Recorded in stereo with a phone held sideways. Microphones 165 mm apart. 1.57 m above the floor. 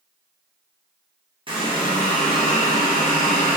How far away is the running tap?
About 0.8 m.